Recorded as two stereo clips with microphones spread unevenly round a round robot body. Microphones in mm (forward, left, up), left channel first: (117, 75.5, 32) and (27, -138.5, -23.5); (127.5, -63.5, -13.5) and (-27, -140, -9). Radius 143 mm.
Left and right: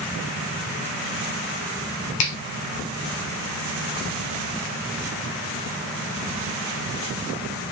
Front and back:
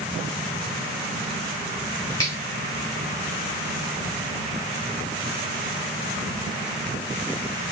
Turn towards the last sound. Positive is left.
turn(degrees=100)